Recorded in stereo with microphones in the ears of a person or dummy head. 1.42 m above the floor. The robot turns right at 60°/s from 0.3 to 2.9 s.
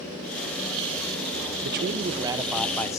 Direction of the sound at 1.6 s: 60° right.